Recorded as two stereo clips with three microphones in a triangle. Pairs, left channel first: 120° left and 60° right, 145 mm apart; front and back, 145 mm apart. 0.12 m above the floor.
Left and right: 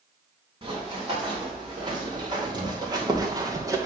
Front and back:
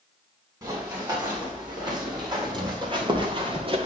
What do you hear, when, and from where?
0.6 s running footsteps: 120° right, 4.5 m; by 3.9 s 130° right, 1.4 m